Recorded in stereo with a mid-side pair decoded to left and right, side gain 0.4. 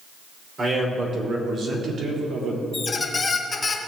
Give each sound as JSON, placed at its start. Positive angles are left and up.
{"t": 0.6, "sound": "a man speaking", "azimuth_deg": -45, "distance_m": 4.0}
{"t": 2.7, "sound": "a squeak", "azimuth_deg": 35, "distance_m": 1.4}